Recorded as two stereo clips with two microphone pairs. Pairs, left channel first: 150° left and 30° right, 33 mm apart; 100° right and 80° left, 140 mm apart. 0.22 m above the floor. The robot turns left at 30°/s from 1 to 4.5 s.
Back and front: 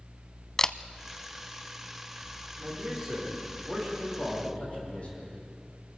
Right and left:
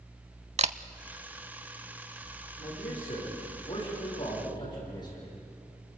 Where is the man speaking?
100° right, 9.5 m; by 5.3 s 160° right, 9.5 m.